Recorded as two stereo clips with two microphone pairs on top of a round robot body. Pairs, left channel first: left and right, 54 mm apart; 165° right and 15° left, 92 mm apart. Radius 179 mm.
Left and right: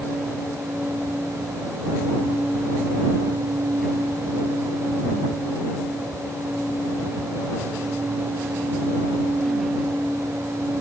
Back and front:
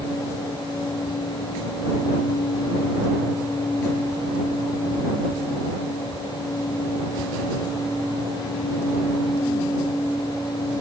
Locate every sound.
Only background noise.